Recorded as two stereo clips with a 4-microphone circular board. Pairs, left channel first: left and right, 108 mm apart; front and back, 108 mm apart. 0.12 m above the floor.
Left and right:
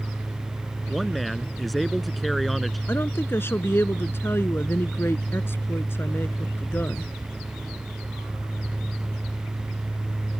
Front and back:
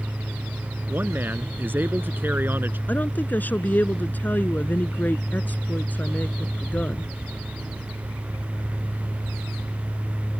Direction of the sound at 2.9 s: 50° left.